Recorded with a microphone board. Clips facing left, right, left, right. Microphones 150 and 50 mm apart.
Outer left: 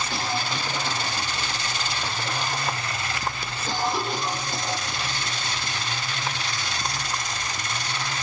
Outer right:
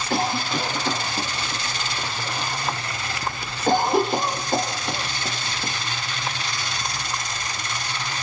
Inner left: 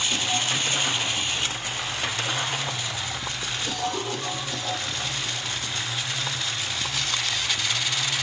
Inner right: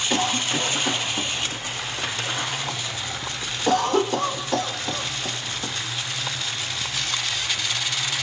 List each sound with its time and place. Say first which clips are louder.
0.1 s a cough: outer right 10 dB, inner right 3 dB; 55° right (ahead or behind), 6.5 m